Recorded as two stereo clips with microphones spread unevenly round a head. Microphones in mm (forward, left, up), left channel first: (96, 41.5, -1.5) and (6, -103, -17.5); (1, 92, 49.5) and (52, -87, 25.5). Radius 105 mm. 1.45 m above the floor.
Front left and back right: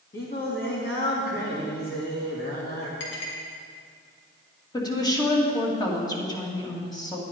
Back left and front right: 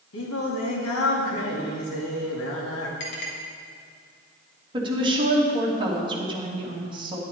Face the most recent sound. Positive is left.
turn(degrees=-10)